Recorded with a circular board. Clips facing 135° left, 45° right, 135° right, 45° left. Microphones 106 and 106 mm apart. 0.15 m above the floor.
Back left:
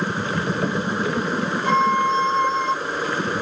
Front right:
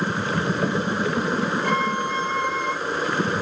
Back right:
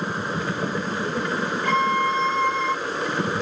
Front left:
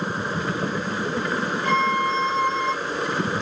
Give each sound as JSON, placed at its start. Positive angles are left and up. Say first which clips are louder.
{"t": 1.6, "sound": "a violin", "louder": "back left 5 dB, even", "azimuth_deg": -20, "distance_m": 3.0}